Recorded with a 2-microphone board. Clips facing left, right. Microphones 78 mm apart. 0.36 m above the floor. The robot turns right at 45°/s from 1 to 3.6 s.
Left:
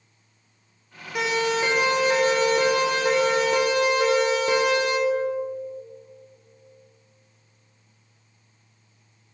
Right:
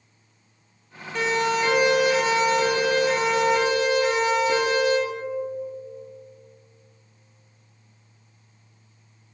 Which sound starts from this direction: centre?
A siren, at 1.1 s.